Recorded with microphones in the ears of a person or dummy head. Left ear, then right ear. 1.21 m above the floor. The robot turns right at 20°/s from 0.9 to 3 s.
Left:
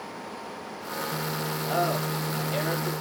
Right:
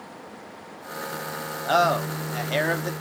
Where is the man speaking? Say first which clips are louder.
Right 7 dB; 55° right (ahead or behind), 0.7 m; by 2.9 s 30° right (ahead or behind), 0.7 m.